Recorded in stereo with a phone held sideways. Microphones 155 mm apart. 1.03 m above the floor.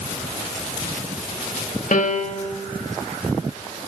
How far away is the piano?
About 1.4 m.